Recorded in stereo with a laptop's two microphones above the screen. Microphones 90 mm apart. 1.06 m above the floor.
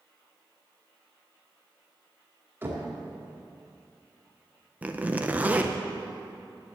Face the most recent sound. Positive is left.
turn(degrees=-20)  # may be behind; listen again after turning